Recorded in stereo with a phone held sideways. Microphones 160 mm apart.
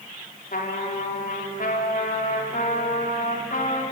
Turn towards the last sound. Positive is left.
turn(degrees=65)  # may be behind; listen again after turning